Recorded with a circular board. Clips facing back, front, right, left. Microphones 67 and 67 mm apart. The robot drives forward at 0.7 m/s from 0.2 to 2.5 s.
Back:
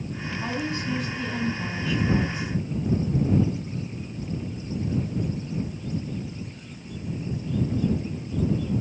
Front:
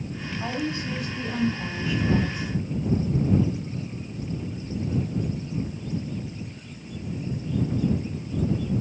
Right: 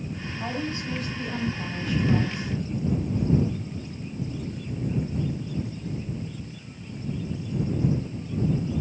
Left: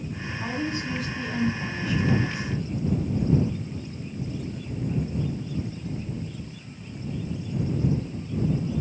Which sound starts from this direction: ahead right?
A woman speaking, at 0.4 s.